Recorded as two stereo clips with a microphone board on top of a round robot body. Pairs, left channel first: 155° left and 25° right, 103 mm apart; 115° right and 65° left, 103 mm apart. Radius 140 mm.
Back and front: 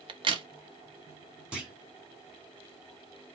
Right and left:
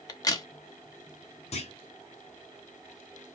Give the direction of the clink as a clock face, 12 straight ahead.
I don't hear a clink.